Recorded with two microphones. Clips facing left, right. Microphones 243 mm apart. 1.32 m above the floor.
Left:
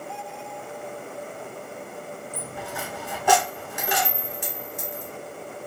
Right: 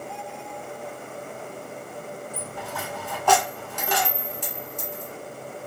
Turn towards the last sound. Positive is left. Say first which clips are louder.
# even
turn(degrees=10)  # may be behind; listen again after turning